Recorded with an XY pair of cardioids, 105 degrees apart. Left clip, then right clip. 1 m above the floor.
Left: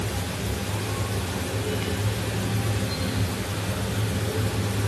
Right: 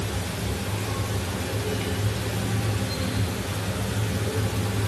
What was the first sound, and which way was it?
Only background noise.